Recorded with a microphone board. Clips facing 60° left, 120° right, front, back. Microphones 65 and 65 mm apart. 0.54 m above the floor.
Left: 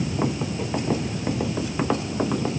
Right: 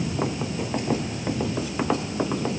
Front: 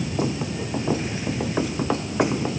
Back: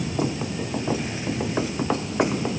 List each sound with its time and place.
Only background noise.